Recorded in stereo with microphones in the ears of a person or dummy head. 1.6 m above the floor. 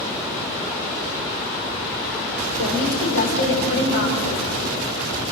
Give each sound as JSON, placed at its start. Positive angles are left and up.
{"t": 2.6, "sound": "a woman speaking", "side_deg": 65, "distance_m": 6.5}